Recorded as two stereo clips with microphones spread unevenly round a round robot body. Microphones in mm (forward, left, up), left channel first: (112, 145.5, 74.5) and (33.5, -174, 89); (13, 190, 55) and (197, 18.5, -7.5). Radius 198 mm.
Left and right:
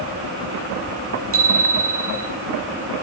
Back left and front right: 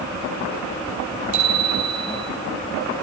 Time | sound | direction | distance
1.3 | a bicycle bell | 55° right | 7.5 m